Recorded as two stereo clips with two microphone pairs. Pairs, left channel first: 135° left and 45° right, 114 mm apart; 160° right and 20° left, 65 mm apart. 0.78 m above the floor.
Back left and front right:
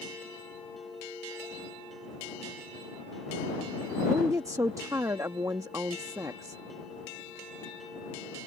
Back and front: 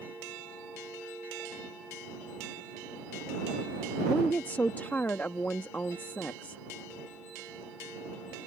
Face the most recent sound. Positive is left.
turn(degrees=-105)